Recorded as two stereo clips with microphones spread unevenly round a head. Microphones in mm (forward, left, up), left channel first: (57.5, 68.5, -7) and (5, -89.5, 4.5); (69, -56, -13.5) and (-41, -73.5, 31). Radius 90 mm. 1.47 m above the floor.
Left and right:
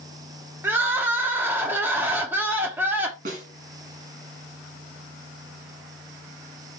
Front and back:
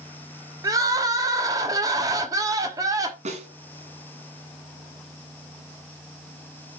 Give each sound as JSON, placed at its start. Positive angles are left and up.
{"t": 0.6, "sound": "crying", "azimuth_deg": 180, "distance_m": 1.3}
{"t": 3.2, "sound": "a snare drum", "azimuth_deg": -160, "distance_m": 2.0}